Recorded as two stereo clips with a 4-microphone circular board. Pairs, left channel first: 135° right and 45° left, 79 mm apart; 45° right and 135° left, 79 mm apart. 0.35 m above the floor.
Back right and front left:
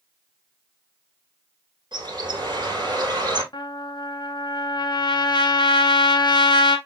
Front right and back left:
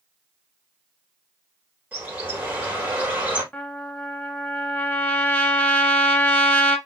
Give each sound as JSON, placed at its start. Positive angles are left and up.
{"t": 1.9, "sound": "a bird", "azimuth_deg": 65, "distance_m": 2.5}
{"t": 3.5, "sound": "a trumpet", "azimuth_deg": -115, "distance_m": 1.0}